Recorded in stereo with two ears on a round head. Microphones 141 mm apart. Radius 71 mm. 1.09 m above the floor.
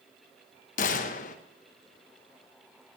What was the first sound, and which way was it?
A gunshot, 50° left (ahead or behind).